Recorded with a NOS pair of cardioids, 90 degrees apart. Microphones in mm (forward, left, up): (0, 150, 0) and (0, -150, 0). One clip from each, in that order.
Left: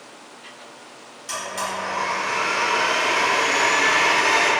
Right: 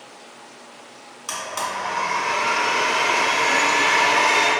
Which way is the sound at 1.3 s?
65° right.